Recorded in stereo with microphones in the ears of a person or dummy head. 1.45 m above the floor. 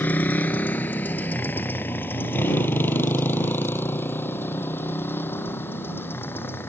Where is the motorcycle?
10° left (ahead or behind); by 6.7 s 15° left (ahead or behind).